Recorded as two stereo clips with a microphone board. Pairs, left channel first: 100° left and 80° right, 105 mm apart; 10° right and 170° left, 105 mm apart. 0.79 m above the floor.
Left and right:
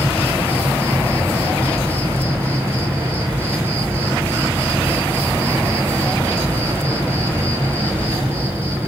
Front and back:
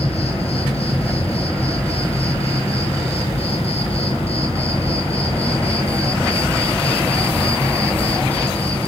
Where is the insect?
5° right, 6 m.